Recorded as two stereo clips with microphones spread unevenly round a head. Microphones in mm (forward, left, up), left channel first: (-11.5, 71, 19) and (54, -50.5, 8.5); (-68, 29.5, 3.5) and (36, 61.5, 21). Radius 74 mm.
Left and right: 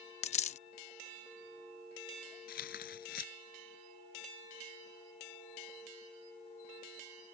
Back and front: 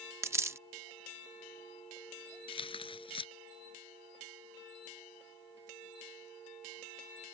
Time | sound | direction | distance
0.2 | a dropped coin | 80° left | ?
2.5 | tearing paper | 155° left | ?